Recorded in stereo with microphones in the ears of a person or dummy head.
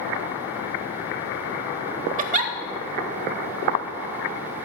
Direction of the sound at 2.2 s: 35° right (ahead or behind).